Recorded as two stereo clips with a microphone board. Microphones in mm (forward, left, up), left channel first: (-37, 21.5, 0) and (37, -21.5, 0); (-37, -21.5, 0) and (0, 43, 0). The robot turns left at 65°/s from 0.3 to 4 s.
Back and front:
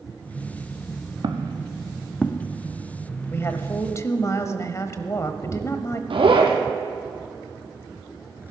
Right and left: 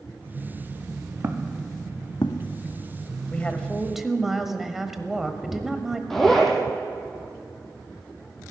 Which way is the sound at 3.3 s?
170° right.